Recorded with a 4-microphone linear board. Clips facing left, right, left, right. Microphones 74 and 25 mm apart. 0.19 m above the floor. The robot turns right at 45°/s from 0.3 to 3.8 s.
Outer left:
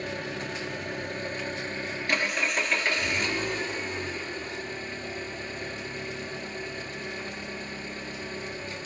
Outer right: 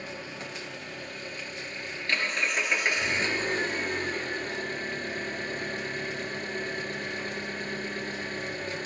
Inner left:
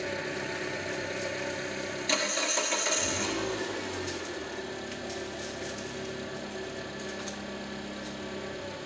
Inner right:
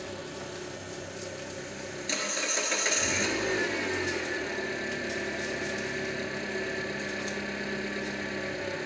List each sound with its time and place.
0.0 s an engine running: 80° left, 1.3 m; by 8.9 s 125° right, 1.3 m